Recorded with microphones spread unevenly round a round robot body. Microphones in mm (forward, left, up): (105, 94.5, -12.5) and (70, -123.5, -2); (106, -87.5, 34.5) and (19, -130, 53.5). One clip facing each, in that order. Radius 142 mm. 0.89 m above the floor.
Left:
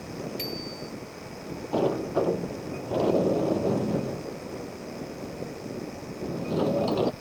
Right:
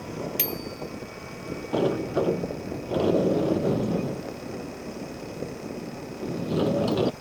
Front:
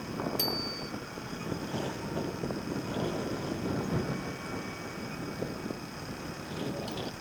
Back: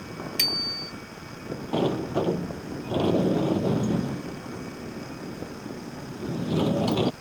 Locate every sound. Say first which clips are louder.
0.4 s a bicycle bell: right 2 dB, even; 165° right
1.7 s a sliding door: right 1 dB, back 14 dB; straight behind